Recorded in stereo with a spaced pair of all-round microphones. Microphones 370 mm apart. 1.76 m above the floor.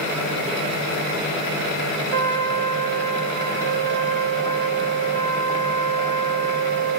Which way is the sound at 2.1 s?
65° right (ahead or behind).